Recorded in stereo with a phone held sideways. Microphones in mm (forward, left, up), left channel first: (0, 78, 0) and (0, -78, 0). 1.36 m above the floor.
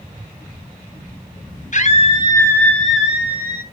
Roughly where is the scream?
Left.